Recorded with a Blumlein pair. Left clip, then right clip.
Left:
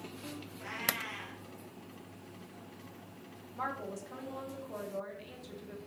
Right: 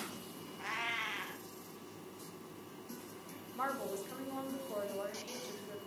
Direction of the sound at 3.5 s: 5° right.